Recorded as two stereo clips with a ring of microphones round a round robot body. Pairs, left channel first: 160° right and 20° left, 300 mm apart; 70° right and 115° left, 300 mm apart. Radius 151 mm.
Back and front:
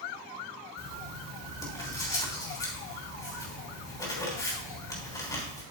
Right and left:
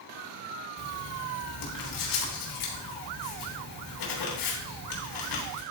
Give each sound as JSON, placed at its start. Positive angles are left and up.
{"t": 0.8, "sound": "writing", "azimuth_deg": -80, "distance_m": 3.5}